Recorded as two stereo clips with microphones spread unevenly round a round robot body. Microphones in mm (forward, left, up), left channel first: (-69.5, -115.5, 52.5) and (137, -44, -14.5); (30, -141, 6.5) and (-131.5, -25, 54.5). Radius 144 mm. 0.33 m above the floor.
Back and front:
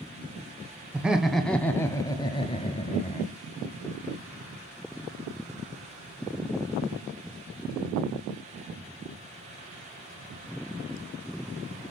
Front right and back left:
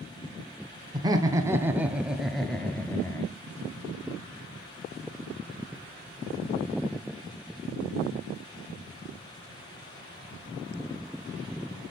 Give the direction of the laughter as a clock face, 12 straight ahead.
10 o'clock.